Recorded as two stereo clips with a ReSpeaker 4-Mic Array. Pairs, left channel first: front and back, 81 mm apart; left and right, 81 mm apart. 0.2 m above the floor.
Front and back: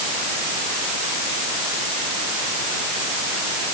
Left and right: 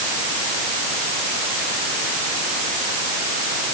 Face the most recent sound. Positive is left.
No sound to turn to.